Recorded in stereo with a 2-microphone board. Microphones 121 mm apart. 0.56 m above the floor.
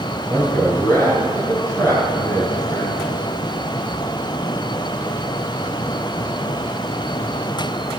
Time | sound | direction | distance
0.3 | a man speaking | 20° left (ahead or behind) | 4 m